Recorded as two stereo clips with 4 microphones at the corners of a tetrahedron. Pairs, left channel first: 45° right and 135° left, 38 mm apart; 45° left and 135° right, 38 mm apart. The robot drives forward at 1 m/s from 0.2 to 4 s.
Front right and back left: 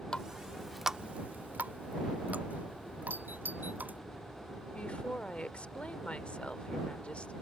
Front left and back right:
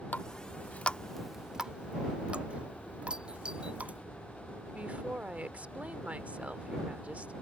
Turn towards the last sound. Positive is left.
turn(degrees=-90)